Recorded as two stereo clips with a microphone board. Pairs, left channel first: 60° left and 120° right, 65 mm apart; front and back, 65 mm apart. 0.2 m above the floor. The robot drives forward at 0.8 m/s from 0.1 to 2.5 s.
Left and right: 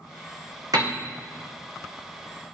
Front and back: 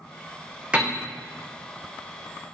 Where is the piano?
110° right, 1.8 m; by 1.0 s 115° right, 1.9 m.